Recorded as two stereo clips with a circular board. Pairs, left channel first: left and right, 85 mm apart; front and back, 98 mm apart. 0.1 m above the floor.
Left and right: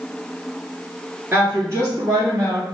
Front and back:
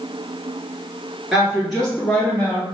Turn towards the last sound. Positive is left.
turn(degrees=-65)